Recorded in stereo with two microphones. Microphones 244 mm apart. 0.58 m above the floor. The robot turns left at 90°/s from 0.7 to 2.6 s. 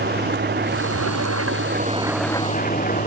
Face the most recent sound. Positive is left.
turn(degrees=145)